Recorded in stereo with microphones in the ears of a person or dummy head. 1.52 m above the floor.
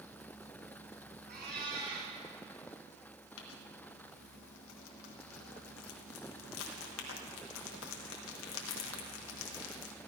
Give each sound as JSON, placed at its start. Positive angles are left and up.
{"t": 1.3, "sound": "a cat meowing", "side_deg": -60, "distance_m": 5.5}
{"t": 3.4, "sound": "crumpling", "side_deg": 70, "distance_m": 1.6}